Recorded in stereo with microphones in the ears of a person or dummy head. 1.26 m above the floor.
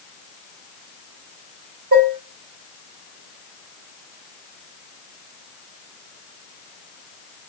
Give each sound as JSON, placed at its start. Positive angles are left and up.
{"t": 1.9, "sound": "dishes clattering", "side_deg": -55, "distance_m": 3.5}